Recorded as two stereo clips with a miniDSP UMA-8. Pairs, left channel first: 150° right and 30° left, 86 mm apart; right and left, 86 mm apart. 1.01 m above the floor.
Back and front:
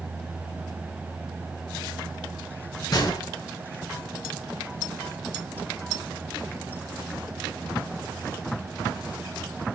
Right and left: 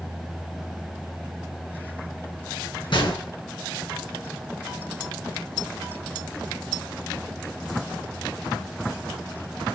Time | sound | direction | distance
2.9 | a gunshot | 105° right | 3 m